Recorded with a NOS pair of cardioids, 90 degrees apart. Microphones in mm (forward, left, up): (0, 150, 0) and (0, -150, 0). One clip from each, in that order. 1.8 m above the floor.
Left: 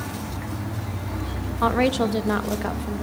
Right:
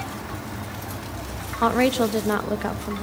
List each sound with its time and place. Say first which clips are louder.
1.6 s a woman speaking: right 1 dB; 10° right, 2.5 m